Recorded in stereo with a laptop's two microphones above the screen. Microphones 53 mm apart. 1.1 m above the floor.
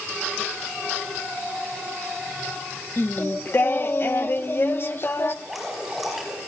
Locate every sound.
3.0 s singing: 45° left (ahead or behind), 0.6 m
5.5 s dripping: 5° right (ahead or behind), 4.5 m